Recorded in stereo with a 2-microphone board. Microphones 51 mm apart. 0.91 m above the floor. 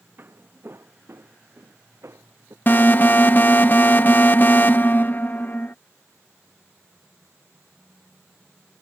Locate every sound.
0.2 s footsteps: 45° right (ahead or behind); by 2.6 s 65° right (ahead or behind)
2.7 s an alarm: 40° left (ahead or behind)